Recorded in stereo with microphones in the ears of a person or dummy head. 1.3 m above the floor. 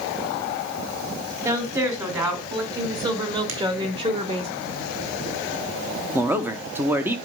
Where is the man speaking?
10° right (ahead or behind), 0.9 m.